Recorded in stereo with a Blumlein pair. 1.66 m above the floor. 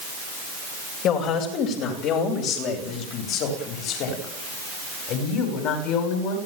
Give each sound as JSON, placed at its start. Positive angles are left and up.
{"t": 1.0, "sound": "a woman speaking", "azimuth_deg": 35, "distance_m": 8.5}